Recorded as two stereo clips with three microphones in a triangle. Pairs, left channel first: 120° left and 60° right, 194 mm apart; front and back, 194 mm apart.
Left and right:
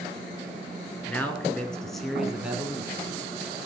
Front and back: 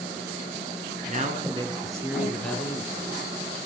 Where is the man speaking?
165° right, 1.7 m; by 3.7 s 5° left, 1.7 m.